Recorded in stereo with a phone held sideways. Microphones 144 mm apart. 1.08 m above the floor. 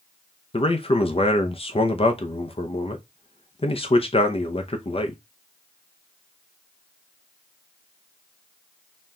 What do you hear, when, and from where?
0.5 s a man speaking: 40° left (ahead or behind), 0.6 m